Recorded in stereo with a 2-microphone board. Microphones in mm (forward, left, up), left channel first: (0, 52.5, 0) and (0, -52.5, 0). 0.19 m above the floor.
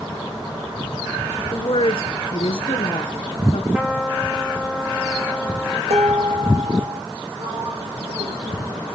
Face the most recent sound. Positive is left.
turn(degrees=-80)